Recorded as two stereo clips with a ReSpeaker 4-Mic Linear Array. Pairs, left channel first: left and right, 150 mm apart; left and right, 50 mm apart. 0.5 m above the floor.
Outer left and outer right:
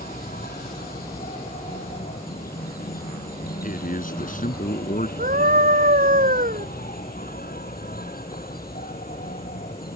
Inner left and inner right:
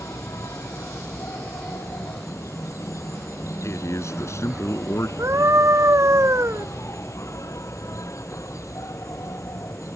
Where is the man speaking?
65° left (ahead or behind).